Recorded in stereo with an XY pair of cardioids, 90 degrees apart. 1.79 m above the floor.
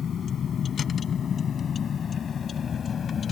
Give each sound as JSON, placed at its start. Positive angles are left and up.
{"t": 0.0, "sound": "a vehicle", "azimuth_deg": 60}